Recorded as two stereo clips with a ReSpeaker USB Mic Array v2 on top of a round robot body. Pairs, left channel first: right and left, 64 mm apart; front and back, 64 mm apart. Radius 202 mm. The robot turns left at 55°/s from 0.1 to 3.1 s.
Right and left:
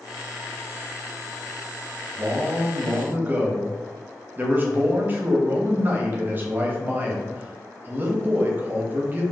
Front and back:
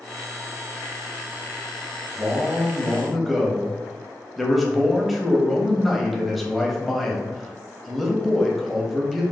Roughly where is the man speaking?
Behind left.